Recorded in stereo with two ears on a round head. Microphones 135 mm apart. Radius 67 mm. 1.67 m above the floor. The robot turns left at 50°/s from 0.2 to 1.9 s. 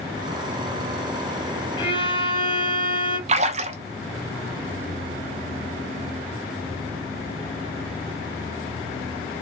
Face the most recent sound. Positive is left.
turn(degrees=-45)  # may be behind; listen again after turning